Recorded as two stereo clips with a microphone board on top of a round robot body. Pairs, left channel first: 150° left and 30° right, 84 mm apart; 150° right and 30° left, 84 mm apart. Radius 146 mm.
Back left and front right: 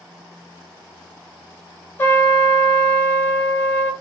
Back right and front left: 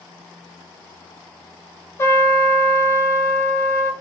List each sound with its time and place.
2.0 s a trumpet: 170° right, 1.2 m